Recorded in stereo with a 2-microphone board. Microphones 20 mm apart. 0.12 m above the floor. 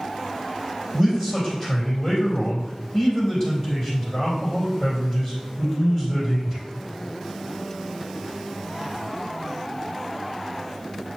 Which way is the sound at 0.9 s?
35° left (ahead or behind).